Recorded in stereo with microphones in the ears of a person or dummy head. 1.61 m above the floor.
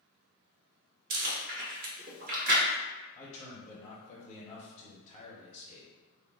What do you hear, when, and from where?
1.1 s chewing: 45° right (ahead or behind), 1.1 m
3.1 s a man speaking: 25° left (ahead or behind), 1.0 m